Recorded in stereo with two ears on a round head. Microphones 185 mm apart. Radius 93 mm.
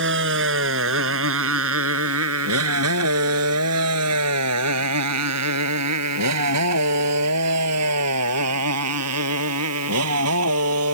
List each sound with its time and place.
0.0 s a motorcycle: 60° right (ahead or behind); by 10.9 s 75° right (ahead or behind)